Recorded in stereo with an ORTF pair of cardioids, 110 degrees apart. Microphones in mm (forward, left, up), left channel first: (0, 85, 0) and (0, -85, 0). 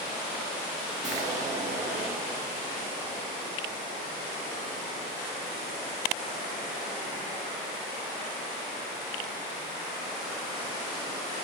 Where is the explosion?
45° right, 1.0 m.